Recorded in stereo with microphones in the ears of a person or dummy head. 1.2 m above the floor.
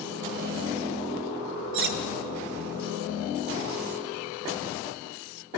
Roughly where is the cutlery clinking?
Right.